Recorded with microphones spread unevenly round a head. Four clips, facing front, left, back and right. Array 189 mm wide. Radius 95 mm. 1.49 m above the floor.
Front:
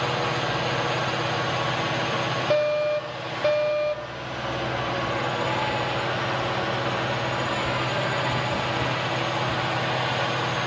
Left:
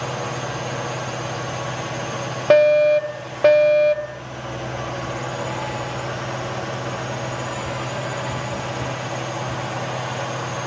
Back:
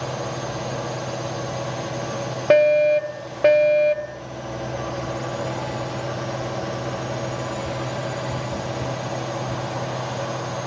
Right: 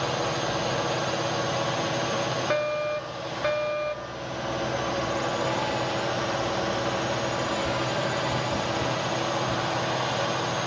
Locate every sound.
0.0 s a drone: 10° left
2.5 s a fire alarm: 130° left